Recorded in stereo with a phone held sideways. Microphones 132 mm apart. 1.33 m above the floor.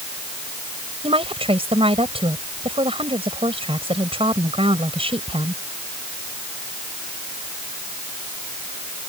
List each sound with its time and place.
1.0 s a woman speaking: 45° right (ahead or behind)